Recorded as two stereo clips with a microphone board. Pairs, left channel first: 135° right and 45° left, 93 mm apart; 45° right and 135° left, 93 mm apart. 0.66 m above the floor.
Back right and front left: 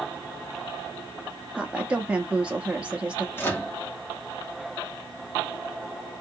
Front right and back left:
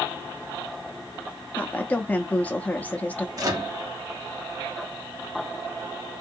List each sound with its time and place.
1.6 s a woman speaking: 5° right, 0.5 m
3.4 s a microwave: 165° left, 0.9 m